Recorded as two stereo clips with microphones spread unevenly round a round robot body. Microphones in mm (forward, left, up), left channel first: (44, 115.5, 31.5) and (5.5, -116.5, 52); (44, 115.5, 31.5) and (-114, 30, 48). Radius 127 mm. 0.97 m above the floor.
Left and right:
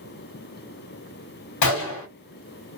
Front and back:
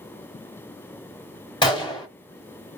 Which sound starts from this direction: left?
A gunshot, at 1.6 s.